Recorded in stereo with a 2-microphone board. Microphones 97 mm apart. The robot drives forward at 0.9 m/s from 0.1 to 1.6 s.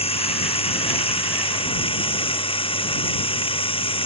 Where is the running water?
80° left; by 4.1 s 70° left (ahead or behind).